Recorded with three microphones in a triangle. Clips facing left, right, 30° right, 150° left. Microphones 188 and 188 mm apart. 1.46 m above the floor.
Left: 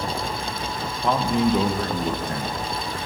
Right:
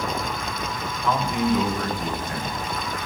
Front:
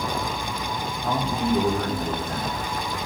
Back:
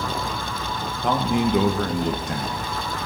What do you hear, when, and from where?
1.0 s a man speaking: 145° left, 1.3 m